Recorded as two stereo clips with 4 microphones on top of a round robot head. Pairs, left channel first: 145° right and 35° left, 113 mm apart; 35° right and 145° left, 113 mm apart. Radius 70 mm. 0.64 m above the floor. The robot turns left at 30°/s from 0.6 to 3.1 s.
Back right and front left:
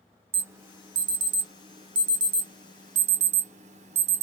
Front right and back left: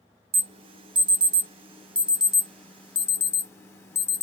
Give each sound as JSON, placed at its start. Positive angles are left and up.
{"t": 0.3, "sound": "an alarm", "azimuth_deg": 105, "distance_m": 1.2}